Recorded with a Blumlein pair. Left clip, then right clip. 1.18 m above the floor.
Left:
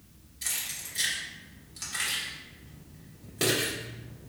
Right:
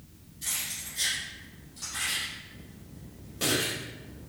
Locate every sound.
0.4 s keys jangling: 60° left, 1.5 m